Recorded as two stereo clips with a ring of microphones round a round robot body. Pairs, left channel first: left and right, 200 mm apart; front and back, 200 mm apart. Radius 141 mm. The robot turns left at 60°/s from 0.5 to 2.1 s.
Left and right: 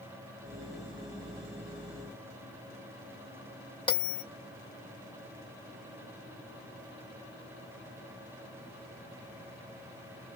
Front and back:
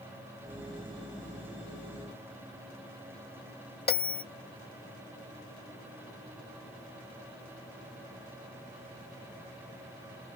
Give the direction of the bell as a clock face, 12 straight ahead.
11 o'clock.